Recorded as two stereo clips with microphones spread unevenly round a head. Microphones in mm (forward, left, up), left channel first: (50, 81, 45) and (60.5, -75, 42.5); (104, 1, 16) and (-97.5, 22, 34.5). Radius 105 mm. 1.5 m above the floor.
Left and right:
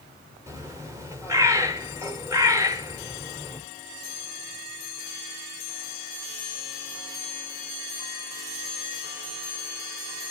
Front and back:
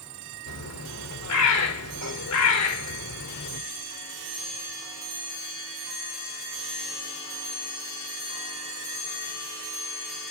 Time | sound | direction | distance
0.5 | a bird | 15° right | 2.5 m